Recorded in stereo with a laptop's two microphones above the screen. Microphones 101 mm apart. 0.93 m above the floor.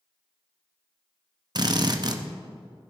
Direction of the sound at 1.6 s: 45° right (ahead or behind).